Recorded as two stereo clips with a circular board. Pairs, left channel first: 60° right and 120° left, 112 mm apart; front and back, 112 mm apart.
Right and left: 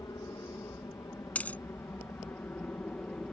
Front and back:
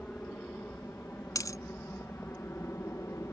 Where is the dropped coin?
Straight ahead.